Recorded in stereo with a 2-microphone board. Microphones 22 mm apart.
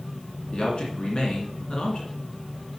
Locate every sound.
0.5 s a man speaking: 40° left (ahead or behind), 2 m